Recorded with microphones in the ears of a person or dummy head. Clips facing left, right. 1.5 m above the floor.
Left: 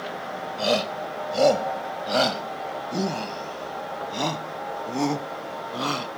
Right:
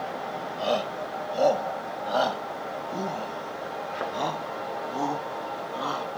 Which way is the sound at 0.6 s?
30° left (ahead or behind).